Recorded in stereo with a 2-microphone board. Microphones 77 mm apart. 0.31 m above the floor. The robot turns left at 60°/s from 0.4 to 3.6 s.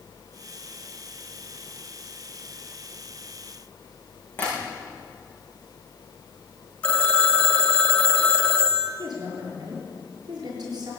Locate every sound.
4.4 s tapping: 25° left (ahead or behind), 6.5 m
6.8 s a phone ringing: 15° left (ahead or behind), 1.1 m
9.0 s a woman speaking: 55° right (ahead or behind), 6 m